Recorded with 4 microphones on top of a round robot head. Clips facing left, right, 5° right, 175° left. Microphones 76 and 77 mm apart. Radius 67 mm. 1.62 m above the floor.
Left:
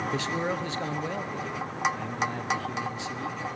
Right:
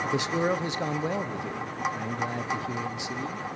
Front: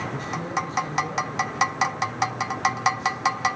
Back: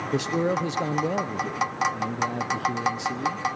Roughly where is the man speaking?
Behind.